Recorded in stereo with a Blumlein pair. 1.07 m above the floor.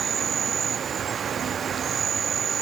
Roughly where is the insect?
Ahead right.